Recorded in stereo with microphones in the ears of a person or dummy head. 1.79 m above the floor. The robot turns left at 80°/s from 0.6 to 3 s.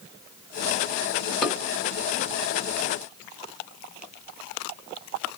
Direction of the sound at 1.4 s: 5° left (ahead or behind).